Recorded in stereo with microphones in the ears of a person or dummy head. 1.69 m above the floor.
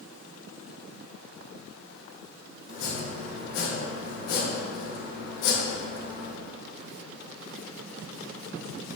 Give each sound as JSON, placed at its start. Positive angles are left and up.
{"t": 2.7, "sound": "chopping", "side_deg": 60, "distance_m": 1.6}